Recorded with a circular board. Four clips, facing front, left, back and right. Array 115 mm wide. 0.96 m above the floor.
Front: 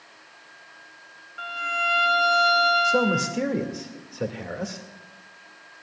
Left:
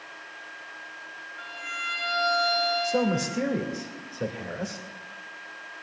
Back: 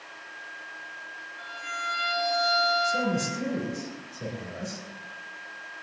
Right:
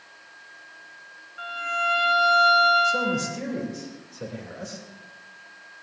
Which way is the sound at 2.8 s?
20° left.